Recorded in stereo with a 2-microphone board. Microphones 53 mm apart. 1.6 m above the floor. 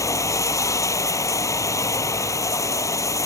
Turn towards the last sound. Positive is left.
turn(degrees=75)  # may be behind; listen again after turning